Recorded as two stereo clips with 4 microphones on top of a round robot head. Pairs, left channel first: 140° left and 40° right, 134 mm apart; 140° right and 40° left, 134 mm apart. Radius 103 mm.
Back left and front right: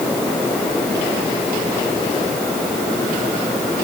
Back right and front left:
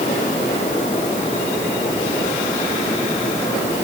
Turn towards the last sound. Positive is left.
No sound to turn to.